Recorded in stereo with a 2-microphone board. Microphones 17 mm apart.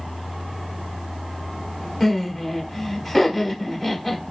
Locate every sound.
2.0 s laughter: 10° left (ahead or behind), 1.4 m